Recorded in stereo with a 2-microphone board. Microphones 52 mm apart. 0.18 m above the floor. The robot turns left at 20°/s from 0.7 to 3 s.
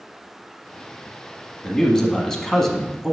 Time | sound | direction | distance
1.6 | a man speaking | 15° left (ahead or behind) | 1.1 m